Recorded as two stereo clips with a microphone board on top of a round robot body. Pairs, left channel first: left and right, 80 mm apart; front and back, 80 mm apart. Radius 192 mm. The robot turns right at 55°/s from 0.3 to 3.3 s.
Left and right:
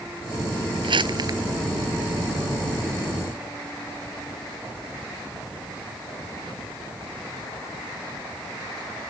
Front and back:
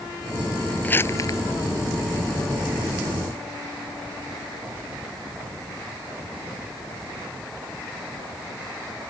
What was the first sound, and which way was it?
Crumpling, 70° right.